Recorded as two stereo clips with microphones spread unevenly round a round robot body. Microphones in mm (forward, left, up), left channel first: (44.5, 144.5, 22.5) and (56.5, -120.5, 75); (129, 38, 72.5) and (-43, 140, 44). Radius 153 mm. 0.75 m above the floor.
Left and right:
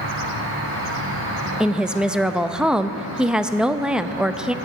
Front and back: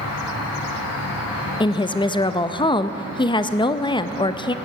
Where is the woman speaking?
25° left, 0.5 m.